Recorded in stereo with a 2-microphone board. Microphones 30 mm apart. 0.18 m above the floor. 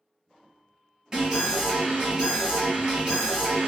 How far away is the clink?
No clink in this recording.